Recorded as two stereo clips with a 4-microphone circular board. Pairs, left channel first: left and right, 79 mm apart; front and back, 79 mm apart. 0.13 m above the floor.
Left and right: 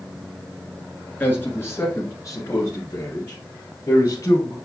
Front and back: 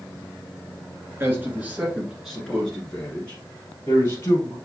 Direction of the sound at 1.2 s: 140° left.